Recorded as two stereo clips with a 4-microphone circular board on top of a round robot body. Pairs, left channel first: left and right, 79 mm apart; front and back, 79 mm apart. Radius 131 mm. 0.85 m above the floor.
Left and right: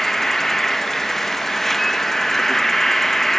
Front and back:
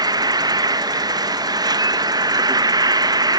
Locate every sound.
0.0 s an insect: 175° left